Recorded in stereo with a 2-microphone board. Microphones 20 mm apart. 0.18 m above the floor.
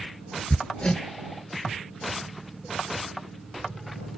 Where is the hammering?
50° left (ahead or behind).